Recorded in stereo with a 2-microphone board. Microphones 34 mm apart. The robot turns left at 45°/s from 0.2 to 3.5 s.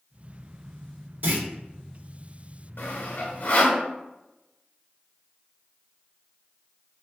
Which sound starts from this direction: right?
A clunk, at 1.2 s.